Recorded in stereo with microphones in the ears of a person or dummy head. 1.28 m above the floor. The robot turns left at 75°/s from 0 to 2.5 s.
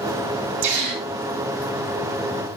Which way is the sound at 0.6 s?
115° right.